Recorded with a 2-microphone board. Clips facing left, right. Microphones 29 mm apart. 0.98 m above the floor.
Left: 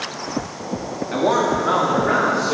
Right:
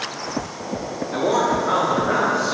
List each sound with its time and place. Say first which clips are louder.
1.1 s a man speaking: left 1 dB; 70° left (ahead or behind), 2 m; by 2.5 s 75° left (ahead or behind), 3 m